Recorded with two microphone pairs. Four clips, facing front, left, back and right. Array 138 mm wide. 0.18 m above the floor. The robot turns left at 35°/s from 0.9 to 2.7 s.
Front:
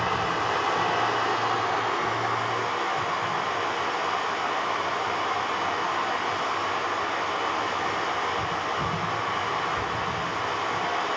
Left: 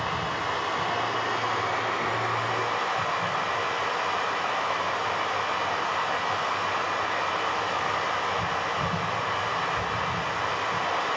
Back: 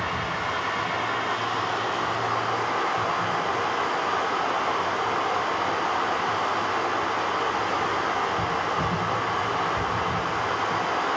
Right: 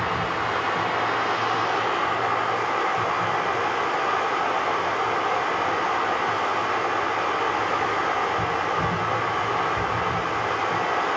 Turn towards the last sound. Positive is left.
turn(degrees=-135)